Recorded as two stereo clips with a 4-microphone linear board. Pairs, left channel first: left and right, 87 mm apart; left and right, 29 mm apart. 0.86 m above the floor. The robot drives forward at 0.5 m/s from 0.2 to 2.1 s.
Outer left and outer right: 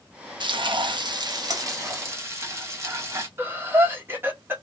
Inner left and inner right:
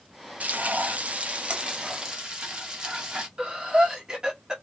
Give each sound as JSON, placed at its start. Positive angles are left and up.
{"t": 0.4, "sound": "frying", "side_deg": -60, "distance_m": 0.6}
{"t": 3.4, "sound": "breathing", "side_deg": -25, "distance_m": 1.0}